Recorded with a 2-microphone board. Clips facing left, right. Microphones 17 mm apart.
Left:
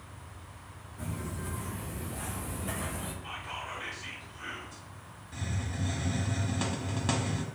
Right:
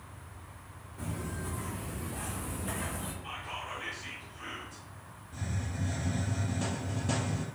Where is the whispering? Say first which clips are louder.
Even; 5° left (ahead or behind), 1.0 m.